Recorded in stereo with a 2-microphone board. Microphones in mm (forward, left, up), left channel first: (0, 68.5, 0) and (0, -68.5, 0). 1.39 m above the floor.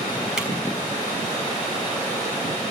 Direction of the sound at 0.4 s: 5° right (ahead or behind).